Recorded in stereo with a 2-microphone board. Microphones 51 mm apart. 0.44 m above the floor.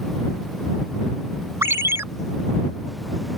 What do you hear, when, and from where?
1.6 s a ringtone: 60° right (ahead or behind)